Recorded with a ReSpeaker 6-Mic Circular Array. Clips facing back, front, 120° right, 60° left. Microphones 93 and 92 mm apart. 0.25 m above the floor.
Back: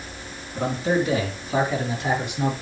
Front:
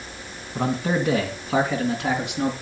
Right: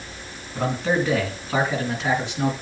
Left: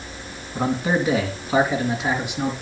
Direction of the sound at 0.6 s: 15° right.